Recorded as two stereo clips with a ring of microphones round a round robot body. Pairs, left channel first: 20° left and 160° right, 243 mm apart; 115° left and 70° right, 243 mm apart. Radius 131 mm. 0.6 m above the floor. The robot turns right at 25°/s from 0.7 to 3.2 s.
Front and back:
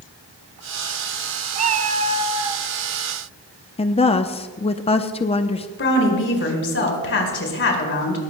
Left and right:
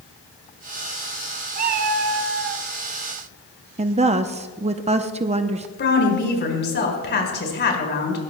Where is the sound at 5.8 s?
65° left, 4.5 m.